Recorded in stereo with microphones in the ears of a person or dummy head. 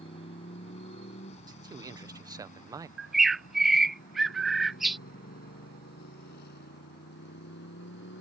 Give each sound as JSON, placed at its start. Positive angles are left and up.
{"t": 0.0, "sound": "a motorcycle", "side_deg": 30}
{"t": 1.5, "sound": "a man speaking", "side_deg": -15}
{"t": 3.0, "sound": "a bird", "side_deg": 0}